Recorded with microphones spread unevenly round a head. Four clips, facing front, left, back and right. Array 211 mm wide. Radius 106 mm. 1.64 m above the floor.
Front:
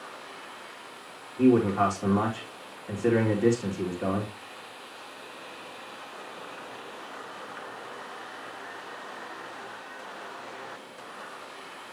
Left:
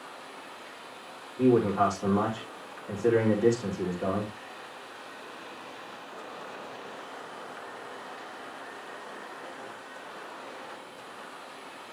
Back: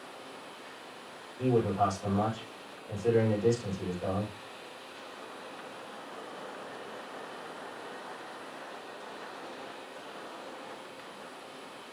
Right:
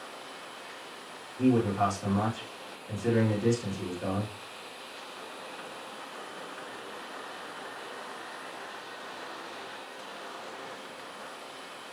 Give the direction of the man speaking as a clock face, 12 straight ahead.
11 o'clock.